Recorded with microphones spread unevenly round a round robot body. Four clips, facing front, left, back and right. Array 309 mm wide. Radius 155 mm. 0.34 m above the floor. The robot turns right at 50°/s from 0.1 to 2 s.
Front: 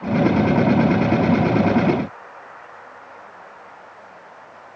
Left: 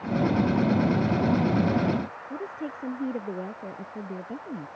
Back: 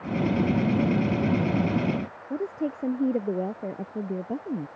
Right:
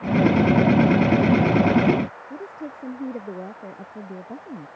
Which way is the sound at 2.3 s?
Straight behind.